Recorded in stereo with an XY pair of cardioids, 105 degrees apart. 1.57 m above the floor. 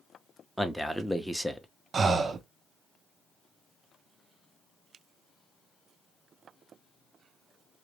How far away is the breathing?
About 0.5 m.